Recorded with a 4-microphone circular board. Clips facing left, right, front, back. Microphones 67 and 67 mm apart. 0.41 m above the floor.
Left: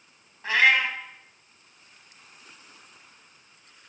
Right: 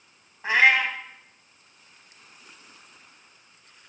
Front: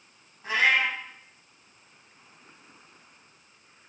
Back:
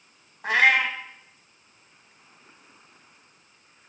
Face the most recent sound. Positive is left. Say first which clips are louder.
# right 1 dB, back 3 dB
turn(degrees=-160)